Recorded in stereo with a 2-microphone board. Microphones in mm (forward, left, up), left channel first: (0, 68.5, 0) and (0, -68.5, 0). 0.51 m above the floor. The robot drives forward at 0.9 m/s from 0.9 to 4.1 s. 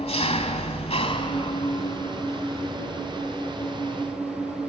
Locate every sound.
0.0 s an engine running: 50° left (ahead or behind), 1.3 m; by 4.7 s 15° left (ahead or behind), 4 m